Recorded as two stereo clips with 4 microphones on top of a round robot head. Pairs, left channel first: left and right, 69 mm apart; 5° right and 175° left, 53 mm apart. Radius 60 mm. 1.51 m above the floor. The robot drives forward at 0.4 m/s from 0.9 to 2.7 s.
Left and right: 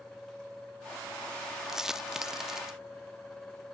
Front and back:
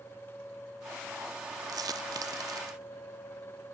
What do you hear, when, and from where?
1.7 s a dropped coin: 175° right